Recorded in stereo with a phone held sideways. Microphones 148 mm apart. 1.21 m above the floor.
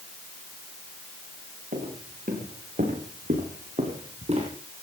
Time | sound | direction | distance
1.7 | footsteps | 80° right | 6.5 m